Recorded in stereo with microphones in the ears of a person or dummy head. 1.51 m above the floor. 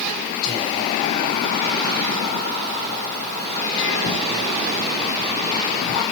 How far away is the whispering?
About 1.3 m.